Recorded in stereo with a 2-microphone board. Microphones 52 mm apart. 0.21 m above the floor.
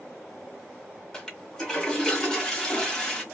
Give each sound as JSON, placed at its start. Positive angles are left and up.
{"t": 1.1, "sound": "a toilet flushing", "side_deg": 10, "distance_m": 1.4}